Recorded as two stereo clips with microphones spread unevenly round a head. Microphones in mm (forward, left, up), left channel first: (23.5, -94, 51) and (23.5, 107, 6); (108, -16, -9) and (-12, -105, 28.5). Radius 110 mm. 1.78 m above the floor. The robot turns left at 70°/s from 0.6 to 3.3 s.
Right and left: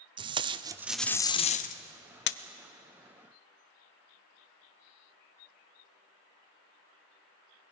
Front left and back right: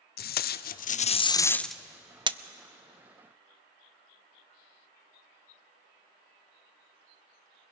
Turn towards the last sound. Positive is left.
turn(degrees=-170)